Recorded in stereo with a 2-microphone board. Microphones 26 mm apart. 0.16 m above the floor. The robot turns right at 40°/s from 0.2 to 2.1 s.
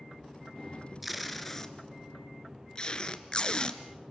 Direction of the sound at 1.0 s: 5° right (ahead or behind).